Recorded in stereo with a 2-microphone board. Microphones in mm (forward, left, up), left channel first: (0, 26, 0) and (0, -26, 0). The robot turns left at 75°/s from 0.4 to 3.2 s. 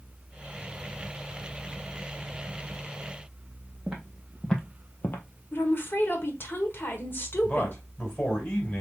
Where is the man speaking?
25° left (ahead or behind), 2 m.